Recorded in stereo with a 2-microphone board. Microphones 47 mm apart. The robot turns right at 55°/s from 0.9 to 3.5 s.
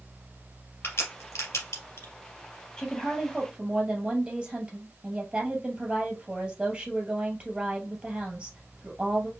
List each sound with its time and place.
0.8 s a crack: 50° left (ahead or behind), 3 m; by 2.1 s 65° left (ahead or behind), 3 m
2.8 s a woman speaking: 160° left, 2.5 m; by 9.3 s 160° right, 2.5 m